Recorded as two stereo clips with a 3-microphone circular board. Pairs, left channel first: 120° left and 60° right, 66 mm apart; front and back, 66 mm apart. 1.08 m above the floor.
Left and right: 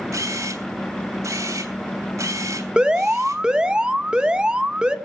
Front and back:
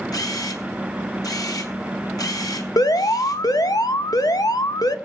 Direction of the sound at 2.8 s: 15° left.